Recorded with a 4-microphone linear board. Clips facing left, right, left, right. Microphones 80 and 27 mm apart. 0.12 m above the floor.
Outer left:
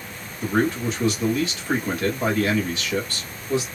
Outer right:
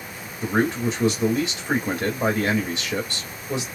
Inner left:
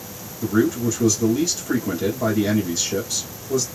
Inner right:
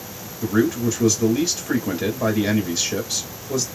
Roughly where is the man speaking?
Right.